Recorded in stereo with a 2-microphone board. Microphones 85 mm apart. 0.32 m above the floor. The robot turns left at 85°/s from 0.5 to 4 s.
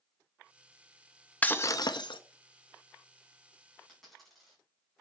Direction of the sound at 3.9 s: 10° left (ahead or behind).